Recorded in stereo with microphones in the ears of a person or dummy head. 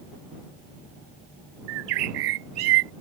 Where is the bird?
75° right (ahead or behind).